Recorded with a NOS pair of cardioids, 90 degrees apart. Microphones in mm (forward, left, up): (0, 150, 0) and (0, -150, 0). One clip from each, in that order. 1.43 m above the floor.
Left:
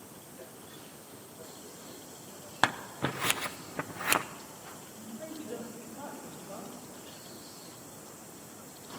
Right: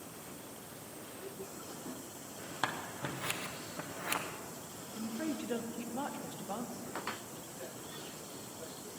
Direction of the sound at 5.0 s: 70° right.